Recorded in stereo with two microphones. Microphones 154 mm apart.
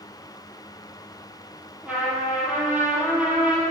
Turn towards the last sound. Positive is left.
turn(degrees=-5)  # may be behind; listen again after turning